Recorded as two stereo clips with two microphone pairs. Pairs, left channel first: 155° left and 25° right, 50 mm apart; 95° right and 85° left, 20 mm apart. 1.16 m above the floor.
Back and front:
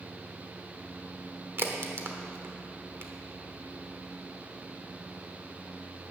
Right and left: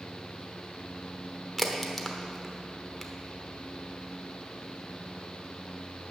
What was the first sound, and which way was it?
A crack, 30° right.